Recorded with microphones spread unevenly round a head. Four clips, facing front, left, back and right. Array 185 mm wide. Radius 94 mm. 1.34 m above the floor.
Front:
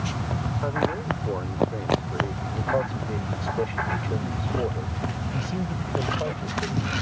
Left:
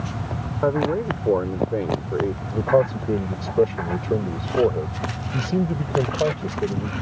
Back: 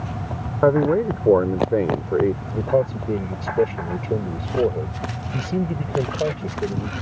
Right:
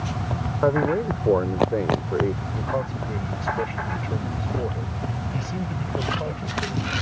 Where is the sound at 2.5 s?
135° left.